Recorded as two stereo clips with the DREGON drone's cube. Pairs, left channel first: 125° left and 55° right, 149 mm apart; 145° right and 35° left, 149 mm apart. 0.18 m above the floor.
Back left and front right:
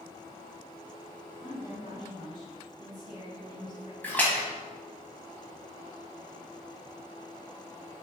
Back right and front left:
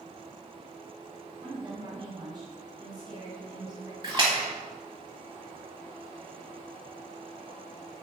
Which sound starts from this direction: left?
A woman speaking, at 1.4 s.